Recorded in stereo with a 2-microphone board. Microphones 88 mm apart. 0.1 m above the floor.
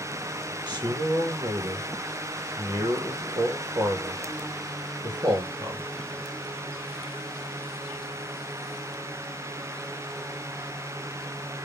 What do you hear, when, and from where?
0.7 s a man speaking: 60° right (ahead or behind), 2.5 m